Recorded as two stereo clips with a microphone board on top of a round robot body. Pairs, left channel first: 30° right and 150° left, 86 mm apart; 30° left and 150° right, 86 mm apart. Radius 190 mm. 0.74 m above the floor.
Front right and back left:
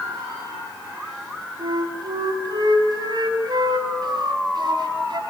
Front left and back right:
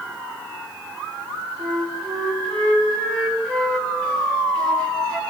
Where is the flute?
110° left, 6 m.